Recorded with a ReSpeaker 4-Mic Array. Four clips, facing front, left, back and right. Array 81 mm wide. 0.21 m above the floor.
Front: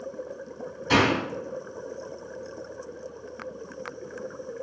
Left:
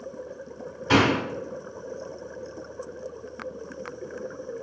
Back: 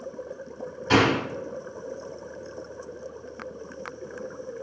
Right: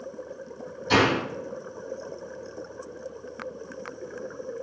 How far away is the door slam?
About 1.2 m.